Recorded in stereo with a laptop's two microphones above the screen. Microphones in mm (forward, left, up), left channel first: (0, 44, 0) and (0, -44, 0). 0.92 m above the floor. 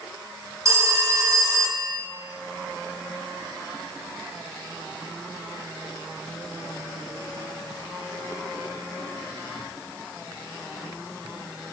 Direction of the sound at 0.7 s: 40° right (ahead or behind).